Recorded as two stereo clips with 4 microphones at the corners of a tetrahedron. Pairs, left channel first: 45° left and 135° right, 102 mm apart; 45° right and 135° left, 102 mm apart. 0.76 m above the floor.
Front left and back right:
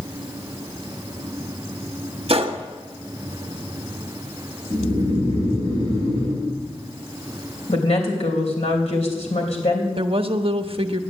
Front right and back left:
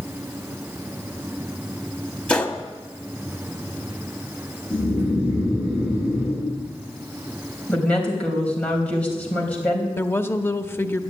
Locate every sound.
2.3 s a gunshot: 120° right, 1.1 m
4.7 s snoring: 55° left, 8 m
7.7 s a woman speaking: 30° left, 3.5 m
10.0 s a woman speaking: 110° right, 0.9 m